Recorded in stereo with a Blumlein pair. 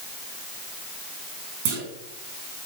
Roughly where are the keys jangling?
I don't hear keys jangling.